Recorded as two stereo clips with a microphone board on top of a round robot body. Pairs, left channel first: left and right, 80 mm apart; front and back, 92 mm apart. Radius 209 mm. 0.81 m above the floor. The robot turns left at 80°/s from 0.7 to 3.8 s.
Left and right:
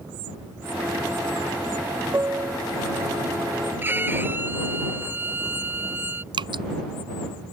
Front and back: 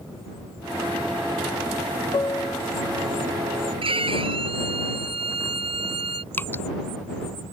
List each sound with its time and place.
2.1 s a piano: 35° right; by 3.7 s 160° right
3.8 s a violin: 155° right
6.3 s dripping: 70° right